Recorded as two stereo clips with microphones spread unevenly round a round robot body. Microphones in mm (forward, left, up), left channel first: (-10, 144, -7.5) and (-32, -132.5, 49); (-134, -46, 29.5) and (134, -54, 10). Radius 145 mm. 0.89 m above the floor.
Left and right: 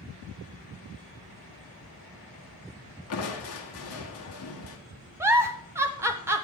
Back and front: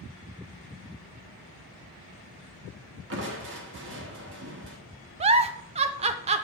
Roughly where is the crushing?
Ahead left.